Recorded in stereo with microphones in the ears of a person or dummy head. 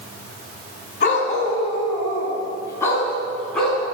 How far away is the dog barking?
About 4 m.